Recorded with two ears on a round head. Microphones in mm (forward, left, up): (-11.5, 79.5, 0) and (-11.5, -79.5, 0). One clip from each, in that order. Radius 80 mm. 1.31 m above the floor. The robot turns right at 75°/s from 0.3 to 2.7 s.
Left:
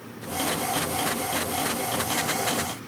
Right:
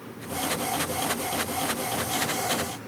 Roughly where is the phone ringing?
No phone ringing in this recording.